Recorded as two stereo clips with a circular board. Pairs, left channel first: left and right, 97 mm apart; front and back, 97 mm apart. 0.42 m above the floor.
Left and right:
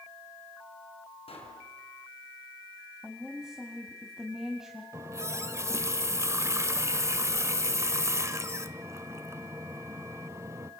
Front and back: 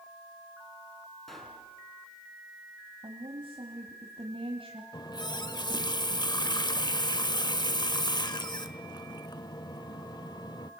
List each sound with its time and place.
1.3 s a pop: 90° left, 5 m
3.0 s a woman speaking: 175° right, 2.5 m
4.9 s a running tap: 35° right, 0.8 m